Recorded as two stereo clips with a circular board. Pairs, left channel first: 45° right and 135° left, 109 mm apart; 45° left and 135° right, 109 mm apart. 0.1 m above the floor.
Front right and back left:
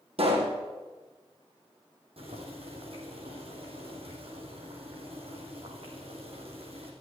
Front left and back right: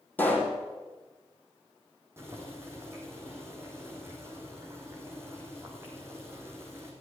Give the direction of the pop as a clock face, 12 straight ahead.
8 o'clock.